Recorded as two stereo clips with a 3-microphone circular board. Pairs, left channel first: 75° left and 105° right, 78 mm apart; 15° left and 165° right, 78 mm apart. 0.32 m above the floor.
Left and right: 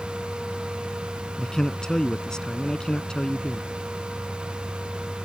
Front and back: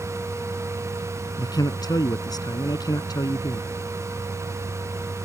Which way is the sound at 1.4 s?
5° right.